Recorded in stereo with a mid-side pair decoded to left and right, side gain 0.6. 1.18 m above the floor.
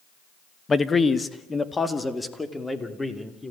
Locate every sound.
0.7 s a man speaking: 25° left, 1.4 m; by 3.5 s 10° left, 3.5 m